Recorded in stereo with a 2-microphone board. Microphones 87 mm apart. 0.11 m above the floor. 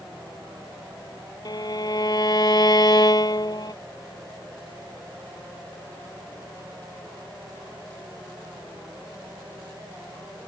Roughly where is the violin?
Left.